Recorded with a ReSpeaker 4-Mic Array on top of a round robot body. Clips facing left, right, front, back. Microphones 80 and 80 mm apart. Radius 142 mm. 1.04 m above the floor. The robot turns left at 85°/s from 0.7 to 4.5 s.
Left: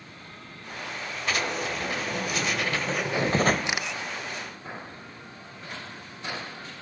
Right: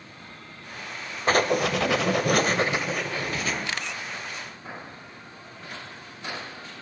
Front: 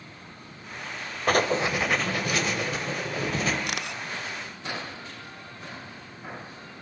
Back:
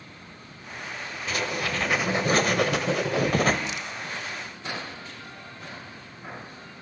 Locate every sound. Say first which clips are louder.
1.3 s writing: right 8 dB, front 6 dB; 35° right, 2.0 m; by 3.6 s 130° left, 2.0 m
3.7 s a camera shutter: left 2 dB, front 1 dB; 20° left, 1.1 m; by 4.0 s 10° right, 1.1 m